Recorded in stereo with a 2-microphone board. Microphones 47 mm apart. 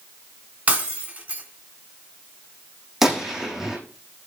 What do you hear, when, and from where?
0.7 s breaking glass: 25° right (ahead or behind), 2.5 m
3.0 s a gunshot: 10° right (ahead or behind), 5 m